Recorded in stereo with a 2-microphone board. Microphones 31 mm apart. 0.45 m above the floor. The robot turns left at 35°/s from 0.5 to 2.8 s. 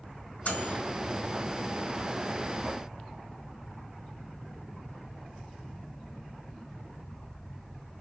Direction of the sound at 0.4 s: 70° left (ahead or behind).